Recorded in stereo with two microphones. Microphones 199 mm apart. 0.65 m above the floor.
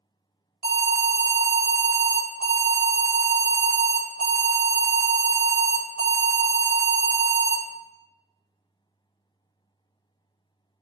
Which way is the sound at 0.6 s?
55° right (ahead or behind).